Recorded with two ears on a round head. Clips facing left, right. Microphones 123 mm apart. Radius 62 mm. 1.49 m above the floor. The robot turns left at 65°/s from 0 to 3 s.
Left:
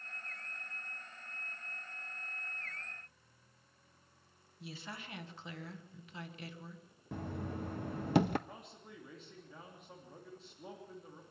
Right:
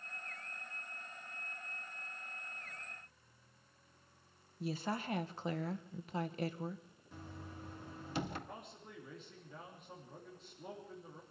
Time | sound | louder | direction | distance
4.6 | a woman speaking | right 9 dB | 35° right (ahead or behind) | 1.1 m
7.1 | knocking | left 9 dB | 50° left (ahead or behind) | 0.9 m
8.5 | a man speaking | right 1 dB | centre (ahead or behind) | 3 m